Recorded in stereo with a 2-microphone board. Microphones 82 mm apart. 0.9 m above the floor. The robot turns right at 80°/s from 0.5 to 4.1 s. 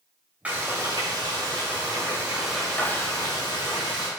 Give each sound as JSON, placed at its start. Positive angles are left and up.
{"t": 0.5, "sound": "frying", "azimuth_deg": -160, "distance_m": 2.5}